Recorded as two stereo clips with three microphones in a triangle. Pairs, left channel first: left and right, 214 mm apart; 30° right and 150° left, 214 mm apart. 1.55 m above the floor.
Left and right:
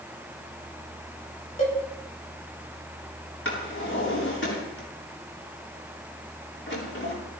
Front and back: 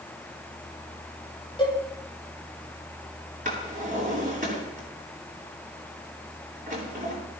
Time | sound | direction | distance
1.6 | a cowbell | 35° left | 5 m
3.5 | a drawer | 100° left | 8.5 m